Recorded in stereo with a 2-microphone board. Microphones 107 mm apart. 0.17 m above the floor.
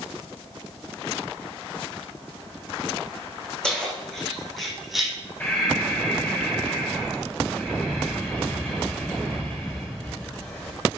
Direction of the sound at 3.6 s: 5° left (ahead or behind).